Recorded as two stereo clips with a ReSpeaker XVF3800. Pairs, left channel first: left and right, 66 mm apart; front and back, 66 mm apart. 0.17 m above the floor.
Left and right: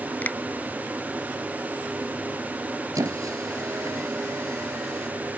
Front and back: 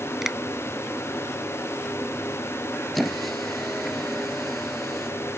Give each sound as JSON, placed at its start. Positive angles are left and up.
{"t": 0.2, "sound": "a finger snap", "azimuth_deg": 100}
{"t": 3.0, "sound": "a squeak", "azimuth_deg": -85}